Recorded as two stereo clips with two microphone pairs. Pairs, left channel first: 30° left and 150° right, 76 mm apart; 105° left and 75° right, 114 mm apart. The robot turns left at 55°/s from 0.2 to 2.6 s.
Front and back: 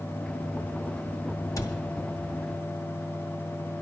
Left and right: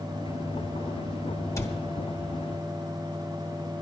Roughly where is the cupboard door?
Ahead left.